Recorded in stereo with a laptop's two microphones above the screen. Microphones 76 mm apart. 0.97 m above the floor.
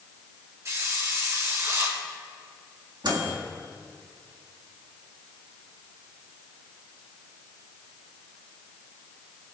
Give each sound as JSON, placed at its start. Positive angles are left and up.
{"t": 0.7, "sound": "a hiss", "side_deg": -45, "distance_m": 4.5}
{"t": 3.0, "sound": "a microwave", "side_deg": -70, "distance_m": 1.7}